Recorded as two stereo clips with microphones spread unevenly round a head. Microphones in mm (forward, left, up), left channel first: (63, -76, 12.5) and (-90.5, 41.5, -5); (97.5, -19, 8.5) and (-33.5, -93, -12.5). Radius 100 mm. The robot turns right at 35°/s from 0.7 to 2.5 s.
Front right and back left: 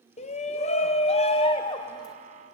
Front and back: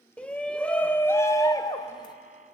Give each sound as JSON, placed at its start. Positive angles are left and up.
{"t": 0.2, "sound": "a shout", "azimuth_deg": -35, "distance_m": 0.6}